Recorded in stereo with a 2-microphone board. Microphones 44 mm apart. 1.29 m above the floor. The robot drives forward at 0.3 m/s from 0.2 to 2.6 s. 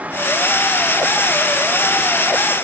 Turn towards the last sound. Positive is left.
No sound to turn to.